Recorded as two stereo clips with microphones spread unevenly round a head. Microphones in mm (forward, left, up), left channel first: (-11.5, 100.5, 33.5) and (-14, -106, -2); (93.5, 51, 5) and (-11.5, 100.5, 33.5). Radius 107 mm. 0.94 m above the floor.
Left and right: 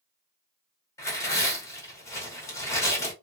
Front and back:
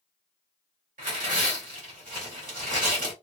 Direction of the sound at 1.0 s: 170° left.